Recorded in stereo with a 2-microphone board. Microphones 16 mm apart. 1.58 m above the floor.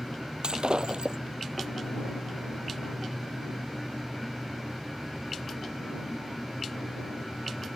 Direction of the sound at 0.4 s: 65° right (ahead or behind).